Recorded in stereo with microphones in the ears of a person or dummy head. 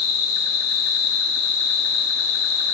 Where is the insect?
85° left, 1.7 m.